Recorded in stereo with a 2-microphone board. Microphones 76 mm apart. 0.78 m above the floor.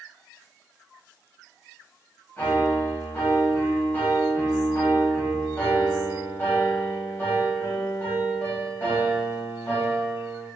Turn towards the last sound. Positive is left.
turn(degrees=30)  # may be behind; listen again after turning